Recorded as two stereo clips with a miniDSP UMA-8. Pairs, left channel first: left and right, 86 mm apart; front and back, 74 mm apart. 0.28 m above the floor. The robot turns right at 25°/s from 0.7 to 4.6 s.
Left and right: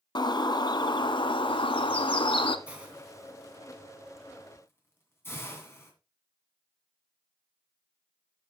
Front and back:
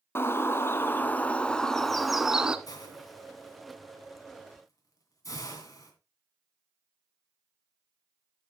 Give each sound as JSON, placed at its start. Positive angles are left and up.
{"t": 0.1, "sound": "a bird", "azimuth_deg": 55, "distance_m": 0.6}
{"t": 2.7, "sound": "a hiss", "azimuth_deg": -15, "distance_m": 2.5}